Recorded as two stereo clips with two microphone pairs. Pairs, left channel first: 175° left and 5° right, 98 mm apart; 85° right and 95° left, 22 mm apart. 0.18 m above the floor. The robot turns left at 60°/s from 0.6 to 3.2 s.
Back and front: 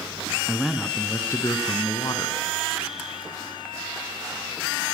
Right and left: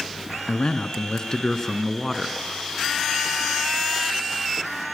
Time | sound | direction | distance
0.5 | a man speaking | 95° right | 2 m